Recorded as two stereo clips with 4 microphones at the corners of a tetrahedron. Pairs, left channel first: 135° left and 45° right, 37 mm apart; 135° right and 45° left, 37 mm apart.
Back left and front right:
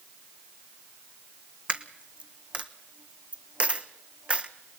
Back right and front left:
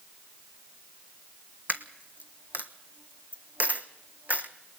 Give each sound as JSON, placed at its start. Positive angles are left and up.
{"t": 1.7, "sound": "a dropped coin", "azimuth_deg": 5, "distance_m": 1.1}